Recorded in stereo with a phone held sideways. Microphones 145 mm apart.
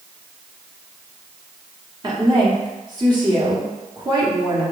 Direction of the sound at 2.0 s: 30° right (ahead or behind).